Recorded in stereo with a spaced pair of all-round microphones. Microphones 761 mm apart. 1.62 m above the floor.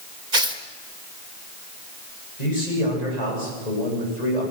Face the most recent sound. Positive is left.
turn(degrees=55)  # may be behind; listen again after turning